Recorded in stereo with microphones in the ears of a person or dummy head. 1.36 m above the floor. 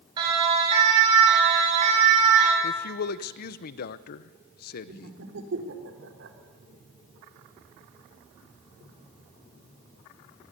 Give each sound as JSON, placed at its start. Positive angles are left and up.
{"t": 0.2, "sound": "a siren", "side_deg": -25, "distance_m": 7.5}
{"t": 2.6, "sound": "a man speaking", "side_deg": 55, "distance_m": 0.8}
{"t": 4.9, "sound": "laughter", "side_deg": -75, "distance_m": 3.5}